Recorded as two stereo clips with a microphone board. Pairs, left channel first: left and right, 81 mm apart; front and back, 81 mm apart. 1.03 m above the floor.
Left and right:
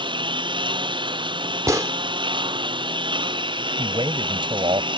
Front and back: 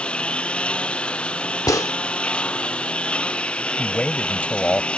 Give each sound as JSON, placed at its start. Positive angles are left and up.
{"t": 0.0, "sound": "a lawn mower", "azimuth_deg": -75}
{"t": 1.7, "sound": "a gunshot", "azimuth_deg": -40}
{"t": 3.8, "sound": "a man speaking", "azimuth_deg": -75}